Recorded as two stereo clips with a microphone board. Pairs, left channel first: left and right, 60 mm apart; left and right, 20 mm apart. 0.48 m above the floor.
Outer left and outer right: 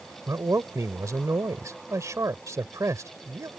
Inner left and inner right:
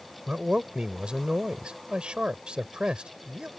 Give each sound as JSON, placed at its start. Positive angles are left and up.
{"t": 0.3, "sound": "a man speaking", "side_deg": -60}